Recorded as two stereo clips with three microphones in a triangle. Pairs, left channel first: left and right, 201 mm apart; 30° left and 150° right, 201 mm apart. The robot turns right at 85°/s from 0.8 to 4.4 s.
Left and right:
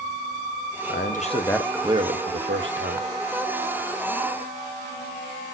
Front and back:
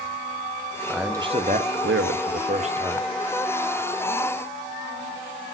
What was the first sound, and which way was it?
A man speaking, 115° left.